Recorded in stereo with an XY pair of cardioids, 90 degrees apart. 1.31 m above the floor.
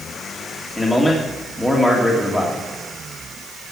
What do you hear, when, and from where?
0.8 s a man speaking: 5° left, 3 m